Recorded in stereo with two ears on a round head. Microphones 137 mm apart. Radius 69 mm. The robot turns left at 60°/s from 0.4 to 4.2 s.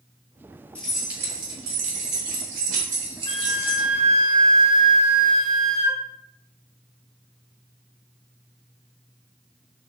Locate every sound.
0.8 s keys jangling: 10° left, 2 m; by 3.9 s 175° right, 2 m
3.3 s a flute: 30° left, 0.8 m; by 6.0 s 30° right, 0.8 m